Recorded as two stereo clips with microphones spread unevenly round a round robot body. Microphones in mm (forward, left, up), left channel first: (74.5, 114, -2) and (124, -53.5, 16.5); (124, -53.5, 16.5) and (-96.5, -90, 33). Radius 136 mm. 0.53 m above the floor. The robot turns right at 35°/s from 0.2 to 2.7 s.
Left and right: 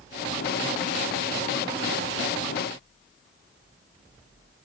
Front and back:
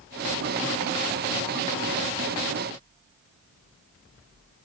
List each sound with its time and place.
Only background noise.